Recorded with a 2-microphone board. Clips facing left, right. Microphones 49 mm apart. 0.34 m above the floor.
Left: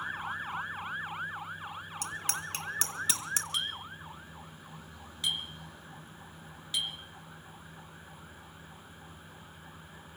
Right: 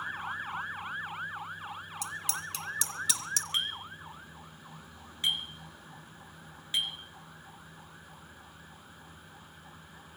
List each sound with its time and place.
2.0 s a bicycle bell: 55° left (ahead or behind), 2.5 m; by 3.4 s 25° left (ahead or behind), 2 m
3.5 s a clink: 35° right (ahead or behind), 3 m